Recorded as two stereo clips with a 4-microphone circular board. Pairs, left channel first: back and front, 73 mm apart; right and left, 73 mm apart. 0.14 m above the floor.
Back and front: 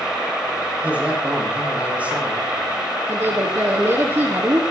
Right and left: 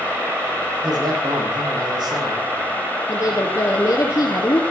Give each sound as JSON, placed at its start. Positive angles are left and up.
{"t": 0.8, "sound": "a man speaking", "azimuth_deg": 70, "distance_m": 6.5}
{"t": 3.1, "sound": "a woman speaking", "azimuth_deg": -40, "distance_m": 3.0}